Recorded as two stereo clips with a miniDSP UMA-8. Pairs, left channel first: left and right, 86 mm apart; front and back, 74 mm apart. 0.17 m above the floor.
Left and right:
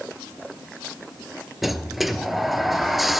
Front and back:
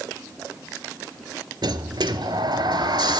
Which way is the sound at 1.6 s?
Straight behind.